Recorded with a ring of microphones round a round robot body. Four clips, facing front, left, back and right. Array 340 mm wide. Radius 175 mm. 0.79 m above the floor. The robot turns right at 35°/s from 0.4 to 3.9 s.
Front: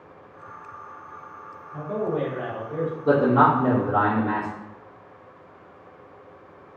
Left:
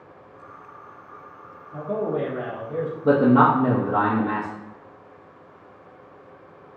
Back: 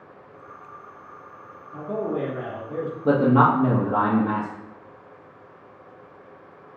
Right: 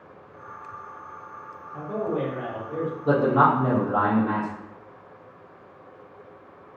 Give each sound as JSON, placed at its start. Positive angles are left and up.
{"t": 1.7, "sound": "a man speaking", "azimuth_deg": 120, "distance_m": 1.8}
{"t": 3.0, "sound": "a man speaking", "azimuth_deg": 135, "distance_m": 1.1}